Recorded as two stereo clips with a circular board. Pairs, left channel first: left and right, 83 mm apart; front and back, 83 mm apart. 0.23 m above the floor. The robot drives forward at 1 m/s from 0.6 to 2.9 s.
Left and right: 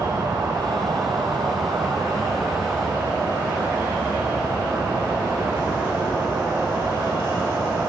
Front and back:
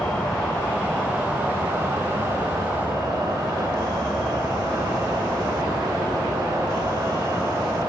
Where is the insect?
70° right, 1.5 m; by 7.9 s 150° right, 2.5 m.